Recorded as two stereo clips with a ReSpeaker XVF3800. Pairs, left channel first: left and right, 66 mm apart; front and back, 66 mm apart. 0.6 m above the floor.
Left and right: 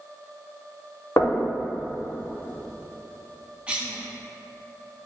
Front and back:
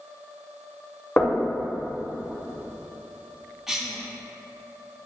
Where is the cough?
100° right, 0.9 m.